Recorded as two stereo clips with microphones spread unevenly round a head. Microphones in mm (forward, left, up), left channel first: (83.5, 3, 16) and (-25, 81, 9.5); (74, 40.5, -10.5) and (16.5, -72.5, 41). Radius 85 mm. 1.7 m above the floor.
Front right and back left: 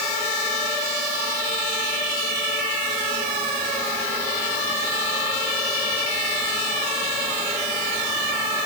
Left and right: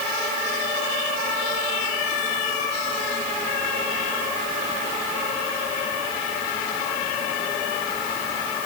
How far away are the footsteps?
I don't hear footsteps.